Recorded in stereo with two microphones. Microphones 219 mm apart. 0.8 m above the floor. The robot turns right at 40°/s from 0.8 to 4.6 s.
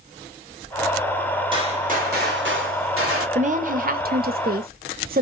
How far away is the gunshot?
About 2.0 m.